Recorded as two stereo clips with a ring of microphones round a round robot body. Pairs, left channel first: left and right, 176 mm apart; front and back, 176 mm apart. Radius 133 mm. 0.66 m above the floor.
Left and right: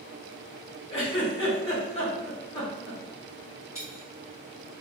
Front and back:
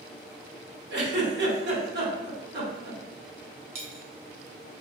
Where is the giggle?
160° left, 1.2 m.